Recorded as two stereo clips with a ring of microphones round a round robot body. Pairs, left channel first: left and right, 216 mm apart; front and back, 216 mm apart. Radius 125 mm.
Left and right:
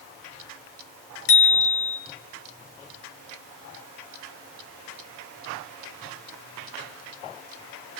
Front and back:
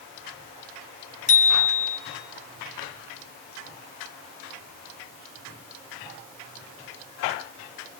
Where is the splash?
No splash in this recording.